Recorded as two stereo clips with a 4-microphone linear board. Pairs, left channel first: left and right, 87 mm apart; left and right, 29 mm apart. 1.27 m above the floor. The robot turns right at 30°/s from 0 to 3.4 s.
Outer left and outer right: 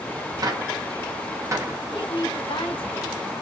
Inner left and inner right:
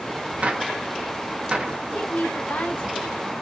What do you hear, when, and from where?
0.4 s a gunshot: 45° right (ahead or behind), 0.6 m; by 1.8 s 30° right (ahead or behind), 0.6 m
1.9 s a woman speaking: 60° left, 1.0 m; by 3.3 s 105° left, 1.0 m